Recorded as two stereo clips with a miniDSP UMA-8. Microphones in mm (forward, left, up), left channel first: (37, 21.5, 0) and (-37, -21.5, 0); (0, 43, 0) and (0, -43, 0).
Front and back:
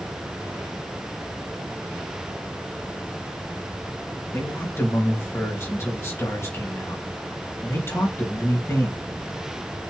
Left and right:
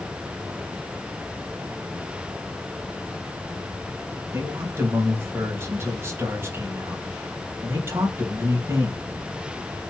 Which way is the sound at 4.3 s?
30° right.